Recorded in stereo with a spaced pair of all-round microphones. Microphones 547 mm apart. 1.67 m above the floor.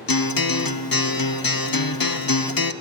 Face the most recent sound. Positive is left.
turn(degrees=40)  # may be behind; listen again after turning